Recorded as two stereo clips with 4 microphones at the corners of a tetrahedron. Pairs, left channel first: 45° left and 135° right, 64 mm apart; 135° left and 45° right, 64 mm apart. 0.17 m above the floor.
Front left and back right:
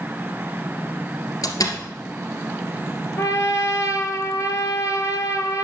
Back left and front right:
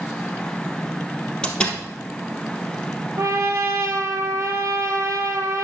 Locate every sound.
1.4 s a door slam: 60° left, 2.5 m
3.2 s a trumpet: 5° left, 1.5 m